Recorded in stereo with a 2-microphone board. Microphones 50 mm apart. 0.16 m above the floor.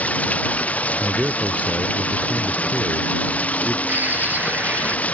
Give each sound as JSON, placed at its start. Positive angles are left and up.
{"t": 0.0, "sound": "running water", "side_deg": 30}
{"t": 1.0, "sound": "a man speaking", "side_deg": -25}
{"t": 3.9, "sound": "a bird", "side_deg": -35}